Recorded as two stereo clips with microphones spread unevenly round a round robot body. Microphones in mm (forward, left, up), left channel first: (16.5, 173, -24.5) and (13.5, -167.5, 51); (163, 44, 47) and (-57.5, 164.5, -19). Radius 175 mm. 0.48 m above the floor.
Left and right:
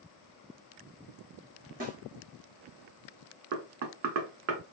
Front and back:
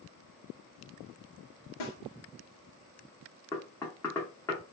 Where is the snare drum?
25° right, 0.9 m.